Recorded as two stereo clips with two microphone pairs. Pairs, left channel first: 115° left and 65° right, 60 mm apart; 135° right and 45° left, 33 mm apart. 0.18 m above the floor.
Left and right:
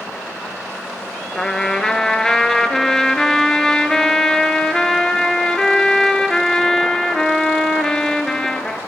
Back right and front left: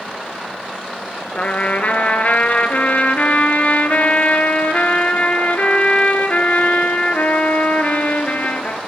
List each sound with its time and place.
1.4 s a trumpet: 165° right, 0.6 m